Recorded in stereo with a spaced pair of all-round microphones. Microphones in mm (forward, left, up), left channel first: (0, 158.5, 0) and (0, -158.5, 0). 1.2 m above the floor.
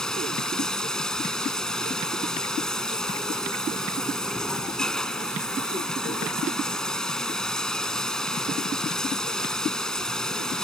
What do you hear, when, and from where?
0.0 s running water: centre (ahead or behind)